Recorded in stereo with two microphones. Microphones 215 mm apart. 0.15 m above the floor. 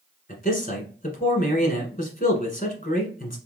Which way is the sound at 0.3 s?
40° left (ahead or behind).